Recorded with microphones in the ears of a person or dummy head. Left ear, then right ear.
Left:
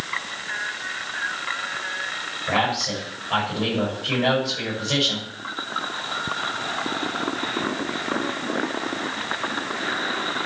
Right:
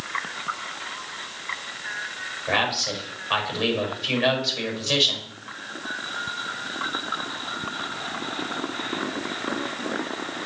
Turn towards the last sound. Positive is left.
turn(degrees=-50)  # may be behind; listen again after turning